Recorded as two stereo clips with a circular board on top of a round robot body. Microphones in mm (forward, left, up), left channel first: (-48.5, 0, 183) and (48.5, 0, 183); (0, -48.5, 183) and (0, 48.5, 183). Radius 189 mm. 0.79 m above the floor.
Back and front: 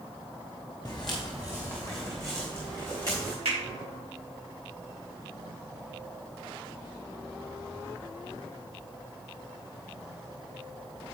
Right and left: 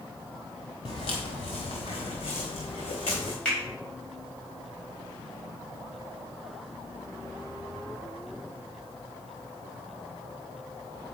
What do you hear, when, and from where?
0.8 s footsteps: 115° right, 0.9 m; by 3.3 s 55° right, 4 m
3.5 s a finger snap: 10° right, 4.5 m